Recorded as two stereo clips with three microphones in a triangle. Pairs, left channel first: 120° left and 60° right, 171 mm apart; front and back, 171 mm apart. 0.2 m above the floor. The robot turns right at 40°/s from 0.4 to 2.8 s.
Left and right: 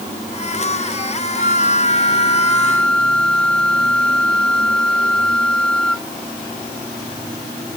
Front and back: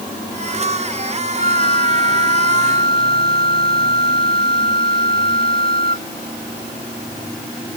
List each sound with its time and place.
1.4 s a flute: 145° left; by 6.1 s 155° right